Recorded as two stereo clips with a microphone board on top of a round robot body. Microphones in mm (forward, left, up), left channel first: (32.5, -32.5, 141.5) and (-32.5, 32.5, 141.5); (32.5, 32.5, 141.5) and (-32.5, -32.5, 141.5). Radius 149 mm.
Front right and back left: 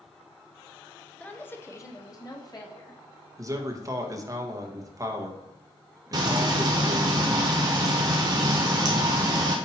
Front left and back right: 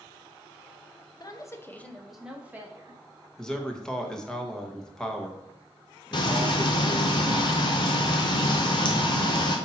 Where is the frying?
85° left, 0.5 m.